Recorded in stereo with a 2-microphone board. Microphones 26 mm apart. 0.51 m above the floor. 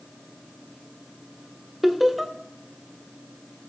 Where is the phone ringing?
I don't hear a phone ringing.